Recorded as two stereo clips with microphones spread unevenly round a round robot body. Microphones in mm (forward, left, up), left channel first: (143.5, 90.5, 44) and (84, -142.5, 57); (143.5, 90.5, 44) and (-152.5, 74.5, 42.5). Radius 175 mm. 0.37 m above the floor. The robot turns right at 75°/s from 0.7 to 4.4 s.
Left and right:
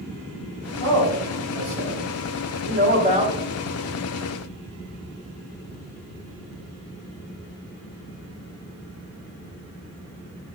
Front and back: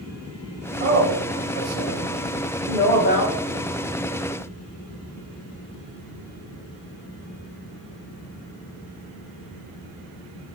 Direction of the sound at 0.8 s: 135° left.